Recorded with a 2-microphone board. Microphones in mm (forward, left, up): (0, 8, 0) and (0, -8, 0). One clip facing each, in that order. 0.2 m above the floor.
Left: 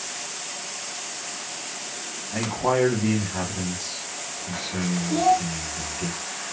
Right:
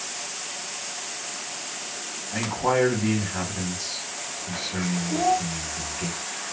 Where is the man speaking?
5° right (ahead or behind), 1.1 m.